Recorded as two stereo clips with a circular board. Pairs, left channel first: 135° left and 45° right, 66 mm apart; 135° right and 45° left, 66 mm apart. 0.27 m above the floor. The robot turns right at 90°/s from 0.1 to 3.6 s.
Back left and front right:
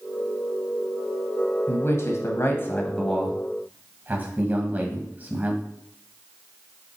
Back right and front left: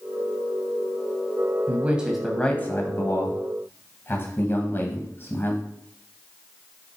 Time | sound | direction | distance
1.7 | a man speaking | 90° left | 1.4 m